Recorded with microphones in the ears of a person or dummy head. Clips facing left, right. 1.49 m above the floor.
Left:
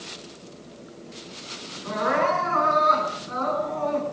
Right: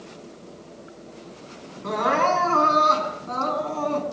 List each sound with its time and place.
1.8 s crying: 80° right, 10 m